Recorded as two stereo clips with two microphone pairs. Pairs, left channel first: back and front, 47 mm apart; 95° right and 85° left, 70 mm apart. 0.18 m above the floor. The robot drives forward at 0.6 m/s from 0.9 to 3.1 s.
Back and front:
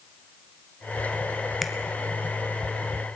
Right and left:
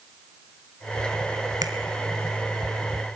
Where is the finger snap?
85° left, 2.0 m; by 1.7 s 90° left, 2.0 m.